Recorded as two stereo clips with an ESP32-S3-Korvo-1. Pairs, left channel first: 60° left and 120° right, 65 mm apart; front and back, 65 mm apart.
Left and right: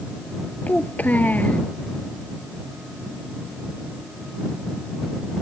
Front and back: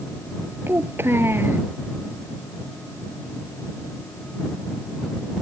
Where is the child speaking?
125° left.